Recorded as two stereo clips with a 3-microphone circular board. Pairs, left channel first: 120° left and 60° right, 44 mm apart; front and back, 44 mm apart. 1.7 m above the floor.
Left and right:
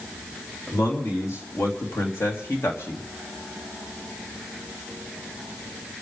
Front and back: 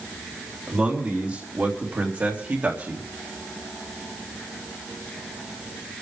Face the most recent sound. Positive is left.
turn(degrees=140)